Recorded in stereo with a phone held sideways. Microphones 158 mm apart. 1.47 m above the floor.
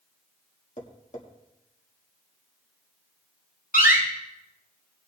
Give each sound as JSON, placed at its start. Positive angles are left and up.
{"t": 0.8, "sound": "tapping", "side_deg": 50, "distance_m": 1.9}
{"t": 3.7, "sound": "a door slam", "side_deg": 70, "distance_m": 6.0}